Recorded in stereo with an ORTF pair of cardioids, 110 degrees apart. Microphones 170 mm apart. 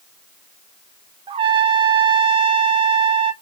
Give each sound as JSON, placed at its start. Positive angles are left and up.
{"t": 1.3, "sound": "a trumpet", "azimuth_deg": -30, "distance_m": 0.5}